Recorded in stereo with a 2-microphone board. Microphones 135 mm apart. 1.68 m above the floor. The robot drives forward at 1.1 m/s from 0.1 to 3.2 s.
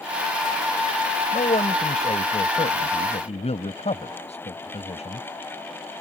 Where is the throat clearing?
I don't hear throat clearing.